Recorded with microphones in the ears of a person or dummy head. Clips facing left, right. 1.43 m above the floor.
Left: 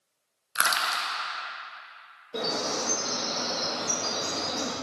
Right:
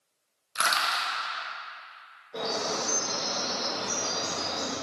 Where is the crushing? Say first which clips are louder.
Even; 10° left (ahead or behind), 1.2 m.